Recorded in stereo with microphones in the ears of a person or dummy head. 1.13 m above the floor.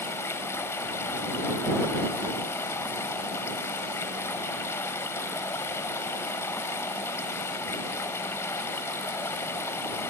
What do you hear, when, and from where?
0.0 s running water: 15° left (ahead or behind)